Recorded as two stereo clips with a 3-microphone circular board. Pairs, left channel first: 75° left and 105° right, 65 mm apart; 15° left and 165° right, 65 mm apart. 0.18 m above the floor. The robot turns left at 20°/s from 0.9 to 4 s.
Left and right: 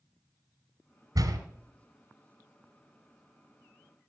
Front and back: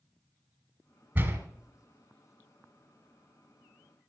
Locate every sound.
1.1 s a door slam: 110° right, 2 m; by 1.4 s 115° right, 2 m